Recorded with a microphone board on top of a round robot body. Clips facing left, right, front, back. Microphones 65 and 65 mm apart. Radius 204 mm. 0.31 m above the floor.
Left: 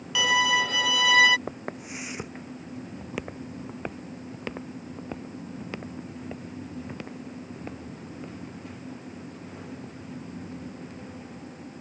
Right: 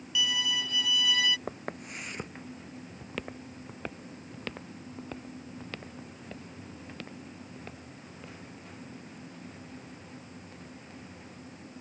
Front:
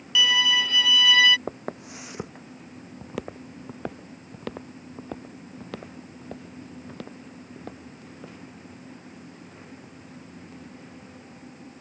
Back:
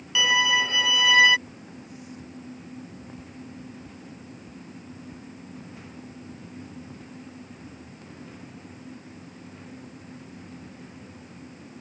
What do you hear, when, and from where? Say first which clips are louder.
0.1 s a violin: left 9 dB, back 1 dB; 110° left
1.5 s footsteps: left 3 dB, front 9 dB; 5° left; by 8.3 s 20° left